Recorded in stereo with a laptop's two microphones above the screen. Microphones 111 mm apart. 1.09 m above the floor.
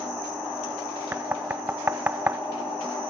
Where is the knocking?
20° right (ahead or behind).